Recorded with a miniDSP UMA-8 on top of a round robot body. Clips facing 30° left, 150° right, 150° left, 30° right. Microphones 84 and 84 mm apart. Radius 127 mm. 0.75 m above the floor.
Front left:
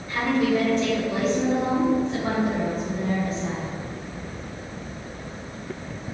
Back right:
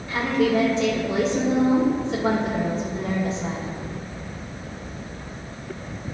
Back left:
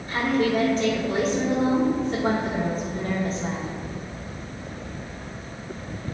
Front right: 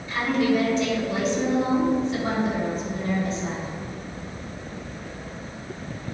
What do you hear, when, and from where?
0.1 s a woman speaking: 160° right, 2.5 m